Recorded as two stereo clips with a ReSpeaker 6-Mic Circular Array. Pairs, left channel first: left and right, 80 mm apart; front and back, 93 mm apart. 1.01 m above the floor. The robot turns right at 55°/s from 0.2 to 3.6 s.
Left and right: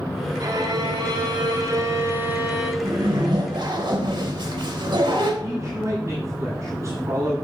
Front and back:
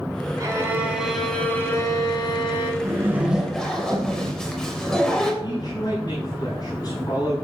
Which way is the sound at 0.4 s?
130° right.